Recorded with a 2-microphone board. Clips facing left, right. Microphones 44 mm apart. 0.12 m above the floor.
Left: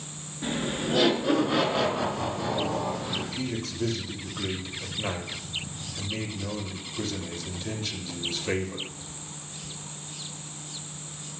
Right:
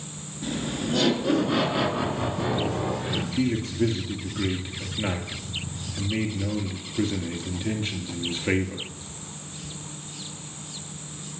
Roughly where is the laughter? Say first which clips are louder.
Even; left.